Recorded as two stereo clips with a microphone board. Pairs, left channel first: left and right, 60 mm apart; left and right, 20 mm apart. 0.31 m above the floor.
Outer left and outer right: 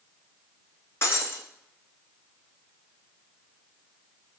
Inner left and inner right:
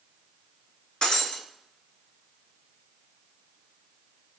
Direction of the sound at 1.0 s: 45° left (ahead or behind).